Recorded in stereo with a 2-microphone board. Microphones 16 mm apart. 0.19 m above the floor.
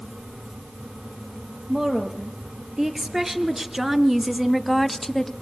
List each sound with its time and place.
1.7 s a woman speaking: 30° right (ahead or behind), 4.5 m; by 5.3 s 20° left (ahead or behind), 1.0 m